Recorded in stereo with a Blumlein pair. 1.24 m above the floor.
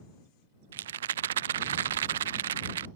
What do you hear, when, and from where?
0.7 s a rattle: 60° right